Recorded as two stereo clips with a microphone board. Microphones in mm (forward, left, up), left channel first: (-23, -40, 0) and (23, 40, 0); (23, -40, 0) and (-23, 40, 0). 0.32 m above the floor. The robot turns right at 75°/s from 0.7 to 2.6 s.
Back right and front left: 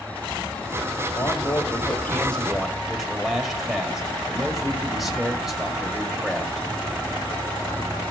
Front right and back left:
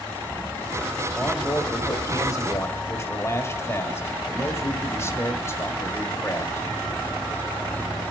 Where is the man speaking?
135° right, 1.6 m; by 6.7 s 25° right, 1.6 m.